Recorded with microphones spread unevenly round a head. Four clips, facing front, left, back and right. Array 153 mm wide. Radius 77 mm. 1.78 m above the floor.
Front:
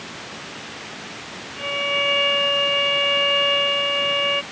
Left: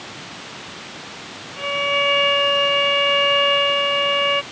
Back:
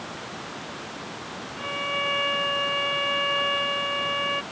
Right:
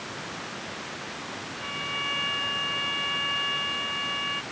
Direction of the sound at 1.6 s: 70° left.